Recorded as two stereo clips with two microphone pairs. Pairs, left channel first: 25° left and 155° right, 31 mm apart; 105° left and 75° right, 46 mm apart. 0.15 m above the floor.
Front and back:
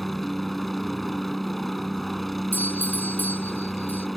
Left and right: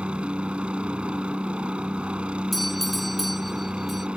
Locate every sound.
0.0 s a helicopter: 55° right
2.5 s a doorbell: 15° left